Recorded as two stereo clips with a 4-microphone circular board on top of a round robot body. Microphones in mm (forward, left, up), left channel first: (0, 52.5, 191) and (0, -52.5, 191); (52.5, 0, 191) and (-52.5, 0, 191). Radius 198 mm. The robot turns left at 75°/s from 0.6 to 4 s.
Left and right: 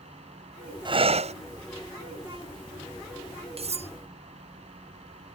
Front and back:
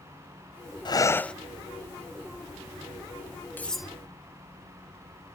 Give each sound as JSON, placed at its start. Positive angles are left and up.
{"t": 0.8, "sound": "breathing", "azimuth_deg": -45}
{"t": 3.6, "sound": "cutlery clinking", "azimuth_deg": -75}